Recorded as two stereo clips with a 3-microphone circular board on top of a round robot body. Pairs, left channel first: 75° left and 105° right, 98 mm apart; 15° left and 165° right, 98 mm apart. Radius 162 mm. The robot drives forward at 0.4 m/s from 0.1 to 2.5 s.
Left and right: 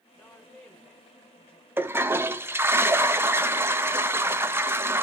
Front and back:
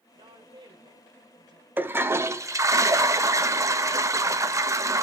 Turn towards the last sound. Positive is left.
turn(degrees=-150)